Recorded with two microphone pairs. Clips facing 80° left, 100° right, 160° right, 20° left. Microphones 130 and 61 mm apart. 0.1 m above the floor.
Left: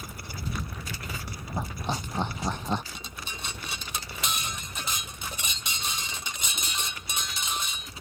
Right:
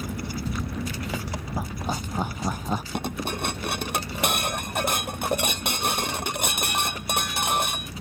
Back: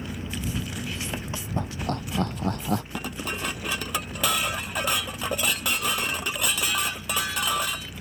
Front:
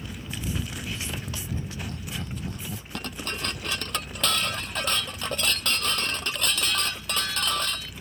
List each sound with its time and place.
0.0 s an engine running: 95° right
1.6 s laughter: straight behind
2.9 s dishes clattering: 80° right